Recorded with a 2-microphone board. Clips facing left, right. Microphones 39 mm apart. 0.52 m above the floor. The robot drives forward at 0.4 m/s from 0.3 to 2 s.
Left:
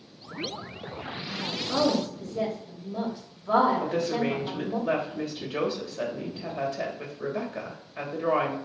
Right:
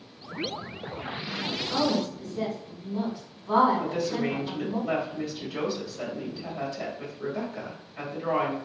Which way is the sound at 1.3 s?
65° left (ahead or behind).